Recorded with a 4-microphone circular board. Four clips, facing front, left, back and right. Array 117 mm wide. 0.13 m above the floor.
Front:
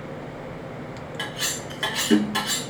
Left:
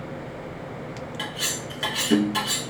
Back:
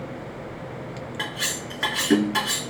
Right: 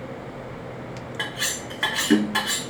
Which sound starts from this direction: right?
Cutlery clinking, at 1.2 s.